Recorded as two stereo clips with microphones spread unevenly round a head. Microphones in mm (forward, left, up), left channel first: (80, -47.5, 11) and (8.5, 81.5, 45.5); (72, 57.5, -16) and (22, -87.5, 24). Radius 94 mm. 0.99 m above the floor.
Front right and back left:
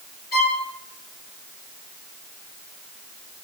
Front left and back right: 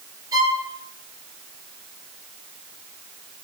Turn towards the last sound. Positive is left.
turn(degrees=-45)